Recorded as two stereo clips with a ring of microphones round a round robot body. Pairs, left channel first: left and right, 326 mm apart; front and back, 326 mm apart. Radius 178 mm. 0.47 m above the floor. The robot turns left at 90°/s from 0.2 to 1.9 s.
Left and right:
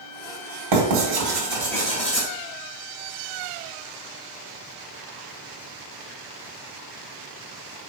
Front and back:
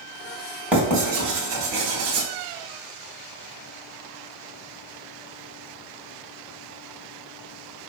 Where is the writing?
95° right, 3.5 m; by 2.3 s 160° left, 3.5 m.